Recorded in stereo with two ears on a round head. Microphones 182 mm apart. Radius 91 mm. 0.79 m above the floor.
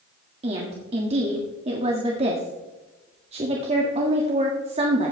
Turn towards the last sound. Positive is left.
turn(degrees=-30)  # may be behind; listen again after turning